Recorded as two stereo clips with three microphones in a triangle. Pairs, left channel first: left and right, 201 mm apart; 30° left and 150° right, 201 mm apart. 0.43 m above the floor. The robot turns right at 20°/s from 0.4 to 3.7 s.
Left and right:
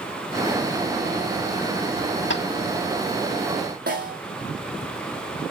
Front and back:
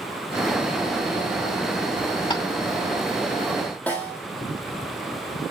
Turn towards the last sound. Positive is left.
turn(degrees=-50)